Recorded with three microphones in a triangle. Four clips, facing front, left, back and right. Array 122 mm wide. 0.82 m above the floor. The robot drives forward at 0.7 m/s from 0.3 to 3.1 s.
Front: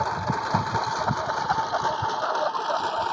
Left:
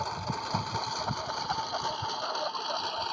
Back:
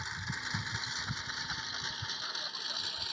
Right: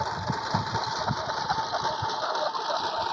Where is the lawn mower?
20° right; by 3.1 s 25° right.